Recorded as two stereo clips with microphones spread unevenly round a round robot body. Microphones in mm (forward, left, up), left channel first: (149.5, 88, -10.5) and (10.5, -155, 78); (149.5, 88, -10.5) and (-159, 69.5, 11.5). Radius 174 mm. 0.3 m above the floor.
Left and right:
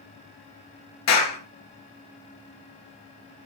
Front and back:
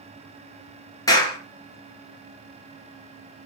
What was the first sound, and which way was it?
A clap, 80° left.